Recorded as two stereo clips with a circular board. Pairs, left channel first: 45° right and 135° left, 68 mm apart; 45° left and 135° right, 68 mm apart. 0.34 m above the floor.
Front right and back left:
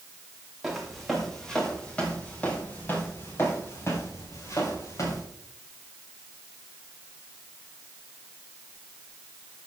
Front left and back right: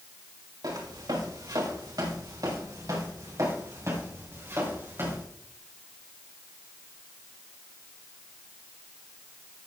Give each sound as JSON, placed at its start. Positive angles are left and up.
{"t": 0.6, "sound": "footsteps", "azimuth_deg": -135, "distance_m": 3.0}